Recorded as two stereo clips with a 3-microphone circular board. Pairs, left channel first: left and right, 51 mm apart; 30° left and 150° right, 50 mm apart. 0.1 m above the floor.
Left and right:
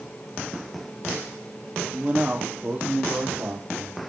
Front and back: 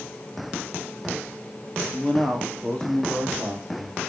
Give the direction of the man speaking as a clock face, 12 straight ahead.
1 o'clock.